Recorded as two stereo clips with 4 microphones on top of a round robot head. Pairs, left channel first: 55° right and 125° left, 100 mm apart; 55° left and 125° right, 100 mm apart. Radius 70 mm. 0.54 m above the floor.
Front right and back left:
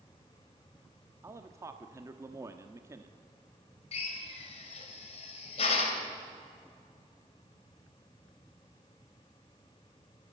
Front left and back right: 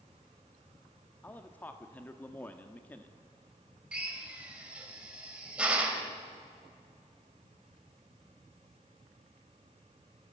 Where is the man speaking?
110° left, 1.0 m.